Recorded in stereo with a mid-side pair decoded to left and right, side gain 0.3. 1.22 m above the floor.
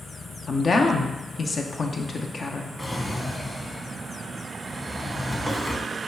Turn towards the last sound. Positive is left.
turn(degrees=15)